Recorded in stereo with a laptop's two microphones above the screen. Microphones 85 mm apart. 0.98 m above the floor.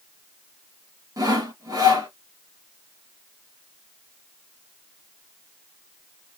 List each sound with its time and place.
1.2 s sawing: 45° right (ahead or behind), 1.4 m